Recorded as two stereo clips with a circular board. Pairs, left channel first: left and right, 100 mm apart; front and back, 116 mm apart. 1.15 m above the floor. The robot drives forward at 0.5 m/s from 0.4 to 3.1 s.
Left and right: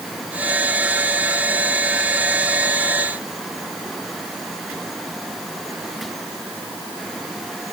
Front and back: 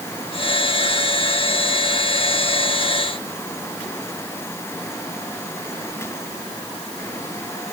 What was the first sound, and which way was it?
Only background noise.